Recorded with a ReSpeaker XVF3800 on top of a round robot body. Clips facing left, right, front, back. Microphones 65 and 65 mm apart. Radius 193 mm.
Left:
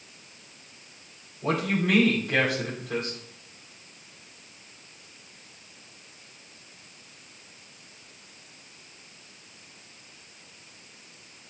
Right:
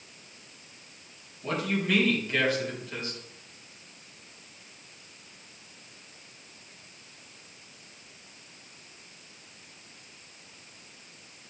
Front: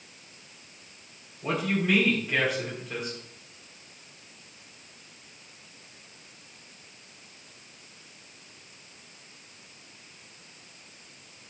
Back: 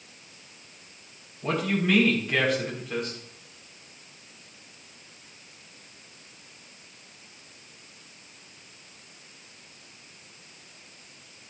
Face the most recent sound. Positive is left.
turn(degrees=85)